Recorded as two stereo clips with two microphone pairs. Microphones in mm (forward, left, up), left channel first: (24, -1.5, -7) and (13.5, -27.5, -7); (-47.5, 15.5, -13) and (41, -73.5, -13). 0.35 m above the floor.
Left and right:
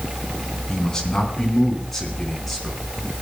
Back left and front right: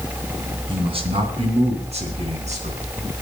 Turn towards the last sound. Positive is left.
turn(degrees=-20)